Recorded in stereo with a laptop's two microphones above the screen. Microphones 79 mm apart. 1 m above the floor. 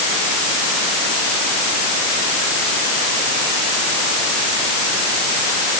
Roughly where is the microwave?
I don't hear a microwave.